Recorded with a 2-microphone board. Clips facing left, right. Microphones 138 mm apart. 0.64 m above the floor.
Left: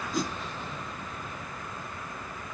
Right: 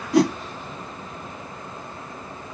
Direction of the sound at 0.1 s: 80° right.